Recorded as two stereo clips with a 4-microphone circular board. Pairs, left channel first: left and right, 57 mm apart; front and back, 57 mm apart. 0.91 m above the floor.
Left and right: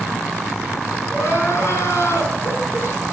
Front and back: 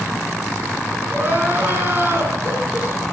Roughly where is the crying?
Behind left.